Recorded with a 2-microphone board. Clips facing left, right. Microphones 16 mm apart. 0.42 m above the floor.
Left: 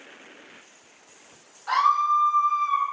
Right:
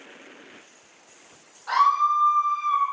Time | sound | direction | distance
1.7 | a scream | 20° left (ahead or behind) | 1.1 m